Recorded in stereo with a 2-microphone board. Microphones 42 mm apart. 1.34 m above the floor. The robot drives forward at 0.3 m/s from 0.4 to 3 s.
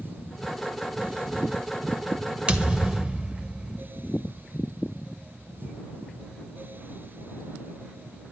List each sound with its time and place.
2.5 s a thud: 30° right (ahead or behind), 1.3 m; by 3.8 s 25° right (ahead or behind), 1.4 m